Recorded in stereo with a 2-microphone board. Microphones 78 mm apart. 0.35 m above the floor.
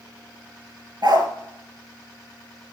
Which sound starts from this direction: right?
A dog barking, at 1.0 s.